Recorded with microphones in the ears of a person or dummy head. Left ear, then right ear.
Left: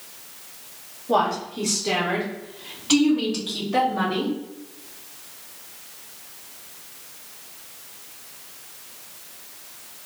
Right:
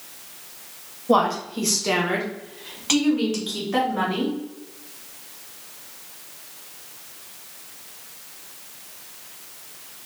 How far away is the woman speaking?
About 1.2 m.